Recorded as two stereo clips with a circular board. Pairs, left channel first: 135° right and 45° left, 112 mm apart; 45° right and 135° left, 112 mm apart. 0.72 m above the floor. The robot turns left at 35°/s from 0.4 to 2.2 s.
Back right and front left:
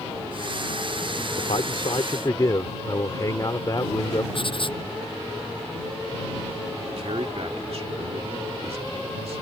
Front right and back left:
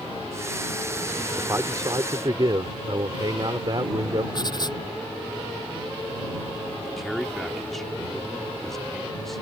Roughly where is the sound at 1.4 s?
Behind.